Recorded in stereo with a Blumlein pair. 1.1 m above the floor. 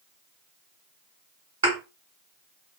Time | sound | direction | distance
1.6 | a thud | 65° right | 1.7 m